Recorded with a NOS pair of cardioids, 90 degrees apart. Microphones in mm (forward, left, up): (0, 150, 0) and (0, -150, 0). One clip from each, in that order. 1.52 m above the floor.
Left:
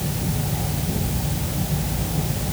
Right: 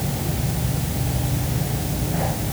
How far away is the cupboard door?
I don't hear a cupboard door.